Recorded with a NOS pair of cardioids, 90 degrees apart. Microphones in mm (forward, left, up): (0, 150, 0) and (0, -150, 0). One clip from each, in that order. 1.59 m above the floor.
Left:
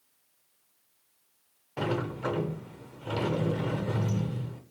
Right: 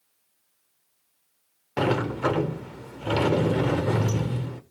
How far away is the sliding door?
About 0.9 m.